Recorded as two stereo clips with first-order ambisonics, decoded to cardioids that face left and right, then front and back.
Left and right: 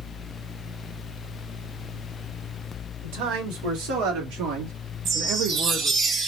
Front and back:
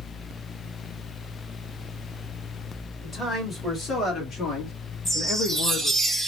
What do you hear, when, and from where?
3.0 s a man speaking: 85° right, 3 m; by 6.0 s 15° right, 1.0 m
5.0 s a chime: 100° right, 1.2 m